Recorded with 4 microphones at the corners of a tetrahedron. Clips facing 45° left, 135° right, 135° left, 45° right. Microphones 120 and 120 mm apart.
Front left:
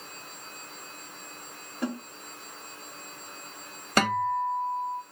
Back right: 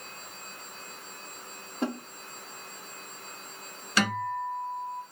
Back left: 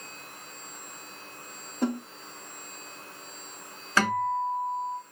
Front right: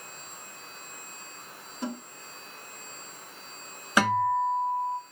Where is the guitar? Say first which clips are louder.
Front left 4 dB, front right 2 dB; 30° left, 1.4 m.